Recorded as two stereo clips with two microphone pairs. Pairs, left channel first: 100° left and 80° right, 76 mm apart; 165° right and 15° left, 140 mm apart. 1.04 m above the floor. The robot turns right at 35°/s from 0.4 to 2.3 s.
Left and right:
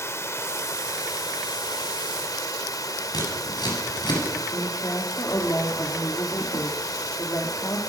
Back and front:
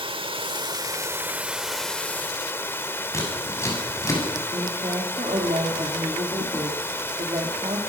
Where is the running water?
55° left, 1.1 m; by 7.9 s 125° left, 1.1 m.